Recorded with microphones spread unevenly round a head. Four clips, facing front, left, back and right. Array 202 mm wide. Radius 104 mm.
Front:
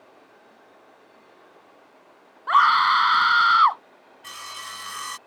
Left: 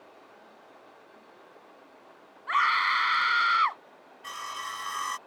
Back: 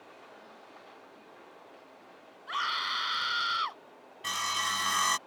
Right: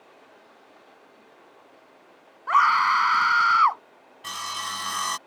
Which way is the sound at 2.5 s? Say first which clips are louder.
Right 7 dB, front 17 dB; 45° right.